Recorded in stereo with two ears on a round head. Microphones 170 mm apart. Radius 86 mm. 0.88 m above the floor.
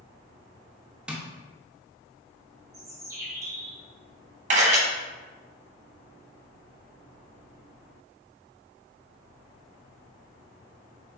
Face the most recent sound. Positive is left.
turn(degrees=-40)  # may be behind; listen again after turning